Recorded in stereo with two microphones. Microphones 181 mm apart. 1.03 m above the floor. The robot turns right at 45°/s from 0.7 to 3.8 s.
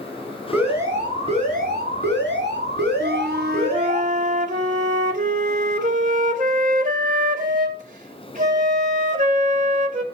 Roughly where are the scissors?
No scissors in this recording.